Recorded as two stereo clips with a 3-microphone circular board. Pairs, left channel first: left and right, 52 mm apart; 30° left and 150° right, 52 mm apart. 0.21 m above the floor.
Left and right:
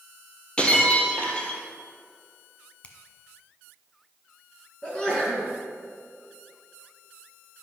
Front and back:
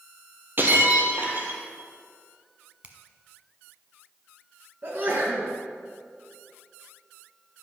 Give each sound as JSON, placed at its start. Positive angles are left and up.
{"t": 0.6, "sound": "breaking glass", "azimuth_deg": 165, "distance_m": 1.5}
{"t": 2.8, "sound": "a finger snap", "azimuth_deg": 150, "distance_m": 1.1}
{"t": 4.8, "sound": "a sneeze", "azimuth_deg": 165, "distance_m": 3.0}